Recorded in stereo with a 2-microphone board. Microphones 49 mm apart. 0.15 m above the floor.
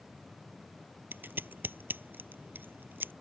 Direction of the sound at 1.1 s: 45° right (ahead or behind).